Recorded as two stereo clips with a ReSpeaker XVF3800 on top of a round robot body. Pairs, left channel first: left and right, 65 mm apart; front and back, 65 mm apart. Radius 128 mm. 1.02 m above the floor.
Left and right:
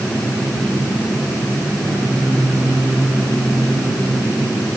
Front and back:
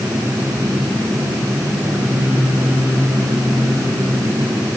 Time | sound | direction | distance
1.8 | singing | 120° right | 7 m